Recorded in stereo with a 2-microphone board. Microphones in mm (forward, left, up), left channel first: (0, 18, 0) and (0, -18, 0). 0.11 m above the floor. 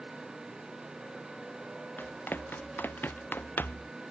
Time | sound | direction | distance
0.0 | a motorcycle | 15° right (ahead or behind) | ?
2.0 | running footsteps | 60° left (ahead or behind) | ?